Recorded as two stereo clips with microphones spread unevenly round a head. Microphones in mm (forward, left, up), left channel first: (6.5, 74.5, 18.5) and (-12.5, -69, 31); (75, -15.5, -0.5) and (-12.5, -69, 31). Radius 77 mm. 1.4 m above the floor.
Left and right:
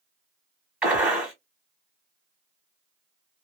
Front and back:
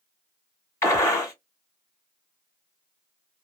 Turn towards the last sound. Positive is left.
turn(degrees=-40)